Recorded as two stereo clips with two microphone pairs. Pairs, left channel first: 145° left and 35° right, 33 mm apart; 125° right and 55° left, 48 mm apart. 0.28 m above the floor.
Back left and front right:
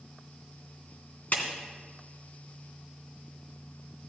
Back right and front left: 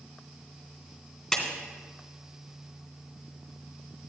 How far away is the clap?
About 2.5 m.